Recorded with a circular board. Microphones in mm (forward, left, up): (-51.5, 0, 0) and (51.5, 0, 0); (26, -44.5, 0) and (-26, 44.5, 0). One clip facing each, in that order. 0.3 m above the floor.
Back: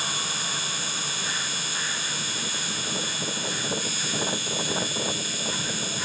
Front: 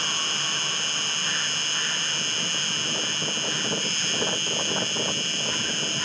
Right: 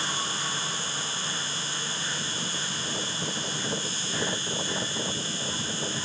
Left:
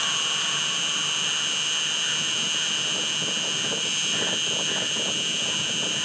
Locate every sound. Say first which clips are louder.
0.0 s an insect: even, even; 95° left